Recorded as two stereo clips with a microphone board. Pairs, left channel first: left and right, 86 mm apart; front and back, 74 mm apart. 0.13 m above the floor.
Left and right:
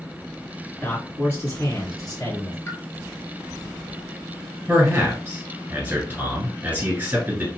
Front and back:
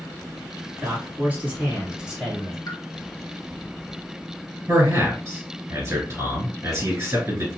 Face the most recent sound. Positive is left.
turn(degrees=-150)